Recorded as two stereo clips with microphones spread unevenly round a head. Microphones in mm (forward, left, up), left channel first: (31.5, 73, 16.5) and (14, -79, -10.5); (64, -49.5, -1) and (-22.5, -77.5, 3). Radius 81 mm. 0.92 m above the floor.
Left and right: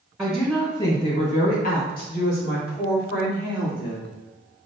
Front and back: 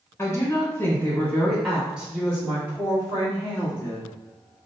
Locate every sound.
0.2 s a woman speaking: 25° right, 0.7 m; by 4.1 s 125° left, 1.9 m